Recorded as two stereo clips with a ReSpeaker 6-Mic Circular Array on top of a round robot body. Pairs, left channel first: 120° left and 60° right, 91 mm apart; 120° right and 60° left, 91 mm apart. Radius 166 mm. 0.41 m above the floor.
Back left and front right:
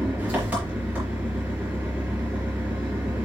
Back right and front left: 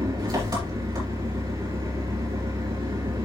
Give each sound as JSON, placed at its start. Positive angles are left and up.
{"t": 0.0, "sound": "an engine running", "azimuth_deg": 15, "distance_m": 4.5}